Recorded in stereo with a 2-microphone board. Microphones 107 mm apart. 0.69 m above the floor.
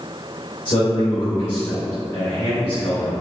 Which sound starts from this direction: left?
A man speaking, at 0.7 s.